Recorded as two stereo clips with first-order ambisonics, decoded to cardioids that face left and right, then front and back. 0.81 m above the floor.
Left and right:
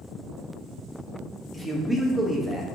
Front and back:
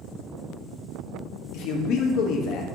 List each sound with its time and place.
1.5 s a man speaking: straight ahead, 0.7 m